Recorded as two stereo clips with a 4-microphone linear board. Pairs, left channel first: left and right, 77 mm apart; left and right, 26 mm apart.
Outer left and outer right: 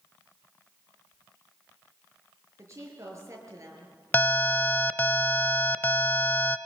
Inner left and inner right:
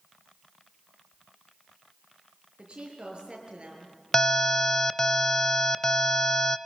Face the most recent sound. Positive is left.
turn(degrees=25)  # may be behind; listen again after turning